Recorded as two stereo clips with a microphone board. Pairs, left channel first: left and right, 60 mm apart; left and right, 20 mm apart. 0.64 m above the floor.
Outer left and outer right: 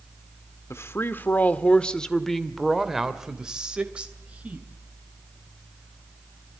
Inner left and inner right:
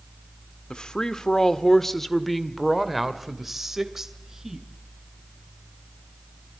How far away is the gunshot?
No gunshot in this recording.